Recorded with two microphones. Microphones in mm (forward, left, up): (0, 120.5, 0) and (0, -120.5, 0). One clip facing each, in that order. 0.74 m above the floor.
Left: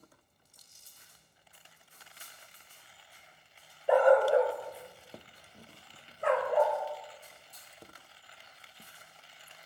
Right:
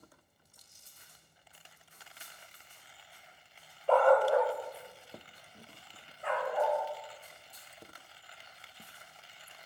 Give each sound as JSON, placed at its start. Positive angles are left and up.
{"t": 3.9, "sound": "a dog barking", "side_deg": 10, "distance_m": 1.1}